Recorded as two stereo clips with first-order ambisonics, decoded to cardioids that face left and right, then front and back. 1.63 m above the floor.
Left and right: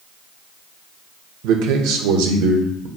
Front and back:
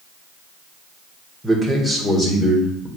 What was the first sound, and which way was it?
A man speaking, 90° right.